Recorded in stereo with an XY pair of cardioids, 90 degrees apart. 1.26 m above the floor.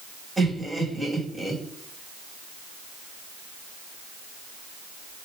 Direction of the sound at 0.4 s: 25° right.